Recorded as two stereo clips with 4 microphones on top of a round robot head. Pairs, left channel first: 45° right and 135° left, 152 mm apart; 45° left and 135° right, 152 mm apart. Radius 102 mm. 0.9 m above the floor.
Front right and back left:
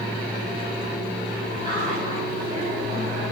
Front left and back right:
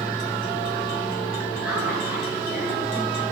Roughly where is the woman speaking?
Left.